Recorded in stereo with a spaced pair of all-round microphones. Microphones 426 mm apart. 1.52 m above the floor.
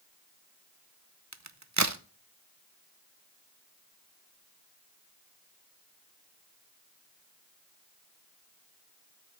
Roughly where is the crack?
Right.